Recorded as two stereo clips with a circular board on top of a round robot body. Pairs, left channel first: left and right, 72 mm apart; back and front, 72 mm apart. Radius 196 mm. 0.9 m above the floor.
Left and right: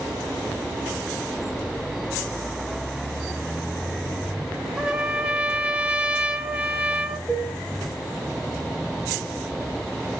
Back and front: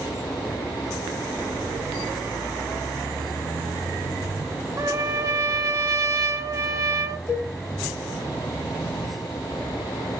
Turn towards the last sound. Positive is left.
turn(degrees=145)